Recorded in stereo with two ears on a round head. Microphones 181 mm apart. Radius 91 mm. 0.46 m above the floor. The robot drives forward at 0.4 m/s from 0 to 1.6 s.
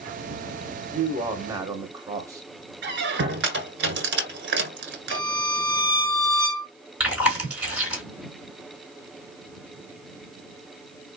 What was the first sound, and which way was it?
A man speaking, 15° right (ahead or behind).